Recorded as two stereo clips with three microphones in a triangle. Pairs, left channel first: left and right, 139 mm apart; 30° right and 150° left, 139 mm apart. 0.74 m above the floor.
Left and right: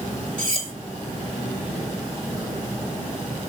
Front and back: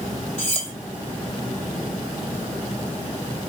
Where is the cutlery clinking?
65° right, 1.9 m.